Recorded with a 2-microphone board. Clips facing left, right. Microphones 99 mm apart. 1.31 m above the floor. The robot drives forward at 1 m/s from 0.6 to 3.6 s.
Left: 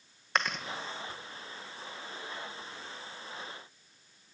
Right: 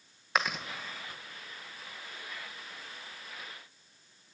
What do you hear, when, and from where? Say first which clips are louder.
0.3 s chewing: right 1 dB; 5° right (ahead or behind), 1.4 m